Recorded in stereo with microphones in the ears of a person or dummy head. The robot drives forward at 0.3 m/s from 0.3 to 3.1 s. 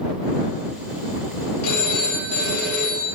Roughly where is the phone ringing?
Left.